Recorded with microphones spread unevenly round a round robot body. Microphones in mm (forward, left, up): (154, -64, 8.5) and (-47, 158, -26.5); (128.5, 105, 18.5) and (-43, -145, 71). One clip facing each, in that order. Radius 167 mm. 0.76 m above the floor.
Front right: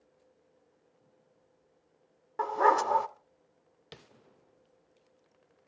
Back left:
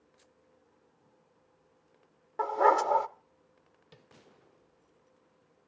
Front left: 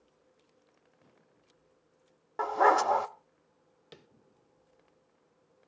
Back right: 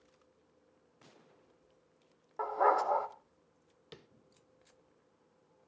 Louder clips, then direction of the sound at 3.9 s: Front right 7 dB, even; 40° right.